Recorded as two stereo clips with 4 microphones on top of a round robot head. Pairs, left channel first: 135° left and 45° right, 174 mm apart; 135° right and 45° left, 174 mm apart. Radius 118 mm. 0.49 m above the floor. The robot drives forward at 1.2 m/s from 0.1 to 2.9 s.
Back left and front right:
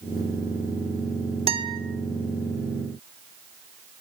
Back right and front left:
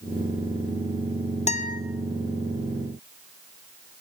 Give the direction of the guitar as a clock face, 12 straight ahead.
3 o'clock.